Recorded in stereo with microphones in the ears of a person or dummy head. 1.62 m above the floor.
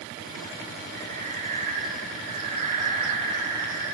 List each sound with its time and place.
0.9 s breathing: 50° right (ahead or behind), 5 m